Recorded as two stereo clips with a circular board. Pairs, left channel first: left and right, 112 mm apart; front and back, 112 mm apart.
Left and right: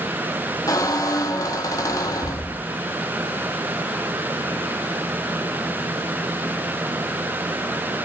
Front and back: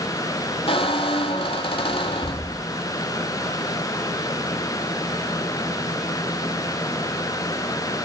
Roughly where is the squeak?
Ahead left.